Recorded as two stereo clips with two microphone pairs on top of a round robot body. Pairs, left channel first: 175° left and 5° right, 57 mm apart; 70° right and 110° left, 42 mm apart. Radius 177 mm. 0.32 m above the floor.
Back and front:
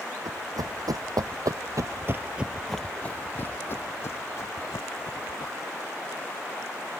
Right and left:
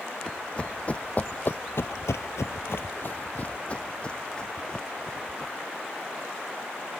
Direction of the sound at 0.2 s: Straight ahead.